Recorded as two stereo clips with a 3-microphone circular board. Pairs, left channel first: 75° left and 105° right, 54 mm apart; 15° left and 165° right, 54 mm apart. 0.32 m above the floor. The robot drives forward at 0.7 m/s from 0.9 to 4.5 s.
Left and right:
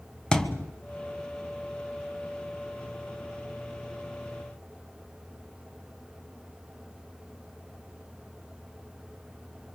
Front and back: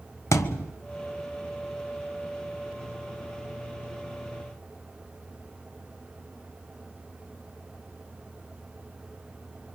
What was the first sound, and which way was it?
A thud, straight ahead.